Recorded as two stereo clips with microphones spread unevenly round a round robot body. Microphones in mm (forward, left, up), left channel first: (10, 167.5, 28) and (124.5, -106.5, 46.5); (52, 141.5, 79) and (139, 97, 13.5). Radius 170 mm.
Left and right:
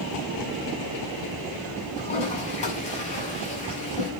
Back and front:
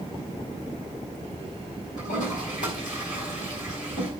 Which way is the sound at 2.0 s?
175° right.